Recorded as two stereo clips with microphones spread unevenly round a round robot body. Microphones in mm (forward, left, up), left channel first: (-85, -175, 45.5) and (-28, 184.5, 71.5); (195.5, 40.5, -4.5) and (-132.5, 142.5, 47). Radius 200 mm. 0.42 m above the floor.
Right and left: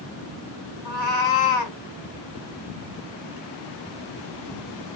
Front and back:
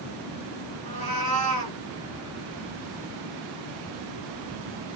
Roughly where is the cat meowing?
Behind right.